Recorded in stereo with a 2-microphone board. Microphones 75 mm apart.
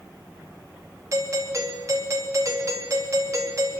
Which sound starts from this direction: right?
A doorbell, at 1.1 s.